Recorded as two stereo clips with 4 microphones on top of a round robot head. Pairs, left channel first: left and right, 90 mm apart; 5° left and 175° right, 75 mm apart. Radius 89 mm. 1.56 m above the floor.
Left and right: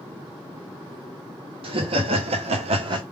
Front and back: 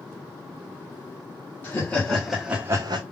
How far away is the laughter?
About 1.1 m.